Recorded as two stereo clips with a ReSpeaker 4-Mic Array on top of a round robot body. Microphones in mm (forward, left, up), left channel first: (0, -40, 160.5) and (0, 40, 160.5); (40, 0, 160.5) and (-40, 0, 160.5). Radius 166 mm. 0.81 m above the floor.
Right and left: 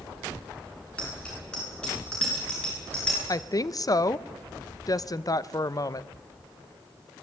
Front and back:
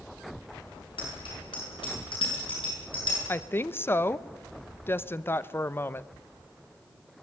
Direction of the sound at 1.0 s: 10° right.